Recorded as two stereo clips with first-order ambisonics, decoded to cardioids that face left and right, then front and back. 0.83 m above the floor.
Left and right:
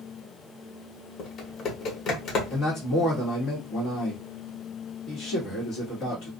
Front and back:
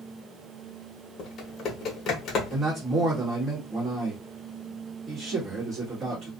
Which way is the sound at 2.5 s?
125° left.